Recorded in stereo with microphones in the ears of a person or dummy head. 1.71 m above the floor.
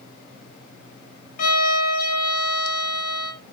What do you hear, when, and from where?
1.4 s a violin: 50° left (ahead or behind), 4 m